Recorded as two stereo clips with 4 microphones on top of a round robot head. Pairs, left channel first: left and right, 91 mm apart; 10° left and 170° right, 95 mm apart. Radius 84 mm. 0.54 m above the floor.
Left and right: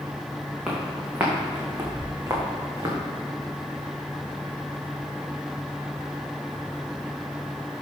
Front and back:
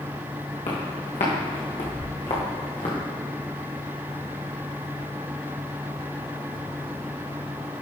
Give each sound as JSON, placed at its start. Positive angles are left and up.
{"t": 0.7, "sound": "footsteps", "azimuth_deg": -10, "distance_m": 2.5}